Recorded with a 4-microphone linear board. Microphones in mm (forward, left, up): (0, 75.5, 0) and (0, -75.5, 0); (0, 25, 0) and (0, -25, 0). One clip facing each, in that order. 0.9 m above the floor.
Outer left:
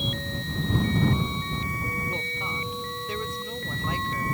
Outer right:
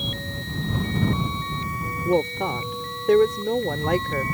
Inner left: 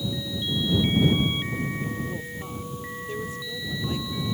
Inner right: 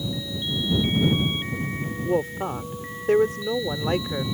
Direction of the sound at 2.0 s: 70° right (ahead or behind).